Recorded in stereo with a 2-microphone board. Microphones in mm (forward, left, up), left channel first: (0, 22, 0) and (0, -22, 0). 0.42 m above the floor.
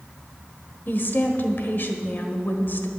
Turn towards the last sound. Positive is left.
turn(degrees=45)  # may be behind; listen again after turning